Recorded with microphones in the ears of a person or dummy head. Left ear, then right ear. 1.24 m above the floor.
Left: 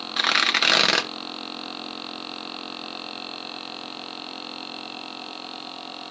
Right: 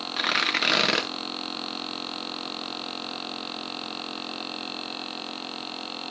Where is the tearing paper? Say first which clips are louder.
Left 4 dB; 20° left (ahead or behind), 0.9 m.